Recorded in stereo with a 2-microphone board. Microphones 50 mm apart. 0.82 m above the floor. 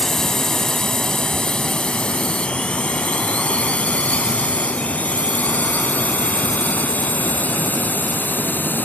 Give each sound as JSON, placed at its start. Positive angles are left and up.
{"t": 0.0, "sound": "a drone", "side_deg": 15}